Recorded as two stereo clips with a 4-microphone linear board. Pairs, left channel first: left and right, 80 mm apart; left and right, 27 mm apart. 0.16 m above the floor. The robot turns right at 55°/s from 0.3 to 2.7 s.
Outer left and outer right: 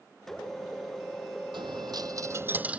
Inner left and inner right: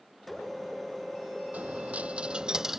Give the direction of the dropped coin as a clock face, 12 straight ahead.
3 o'clock.